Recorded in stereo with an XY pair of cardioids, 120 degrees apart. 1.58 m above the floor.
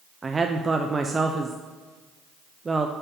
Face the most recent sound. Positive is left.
turn(degrees=-20)